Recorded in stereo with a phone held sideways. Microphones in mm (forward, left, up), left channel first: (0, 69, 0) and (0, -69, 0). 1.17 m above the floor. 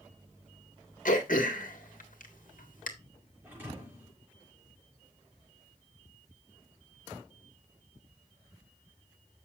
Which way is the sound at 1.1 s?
75° left (ahead or behind).